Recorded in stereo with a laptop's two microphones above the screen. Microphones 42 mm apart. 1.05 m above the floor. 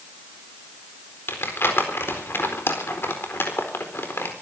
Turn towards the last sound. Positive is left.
turn(degrees=70)  # may be behind; listen again after turning